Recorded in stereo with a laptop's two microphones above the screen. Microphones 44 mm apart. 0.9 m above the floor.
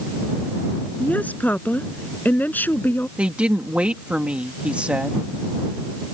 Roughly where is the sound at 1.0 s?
Left.